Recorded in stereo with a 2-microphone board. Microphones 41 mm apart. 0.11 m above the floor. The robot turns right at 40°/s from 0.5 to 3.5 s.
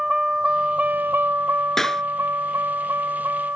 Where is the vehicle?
15° right (ahead or behind); by 3.6 s 60° right (ahead or behind).